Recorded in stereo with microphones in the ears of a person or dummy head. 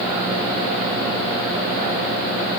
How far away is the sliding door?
I don't hear a sliding door.